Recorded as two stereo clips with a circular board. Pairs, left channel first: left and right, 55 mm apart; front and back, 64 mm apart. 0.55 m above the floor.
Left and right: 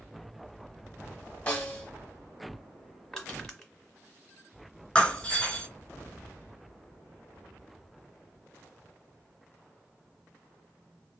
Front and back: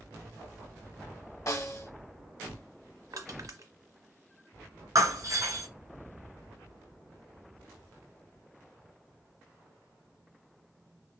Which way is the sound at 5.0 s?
160° left.